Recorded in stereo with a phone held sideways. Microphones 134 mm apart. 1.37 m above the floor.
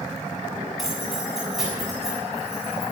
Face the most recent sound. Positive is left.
turn(degrees=0)  # may be behind; listen again after turning